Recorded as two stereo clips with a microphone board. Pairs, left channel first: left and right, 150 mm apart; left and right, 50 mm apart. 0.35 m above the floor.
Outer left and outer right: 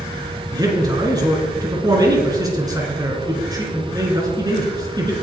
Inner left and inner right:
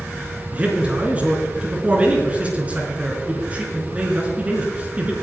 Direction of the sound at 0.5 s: 25° right (ahead or behind).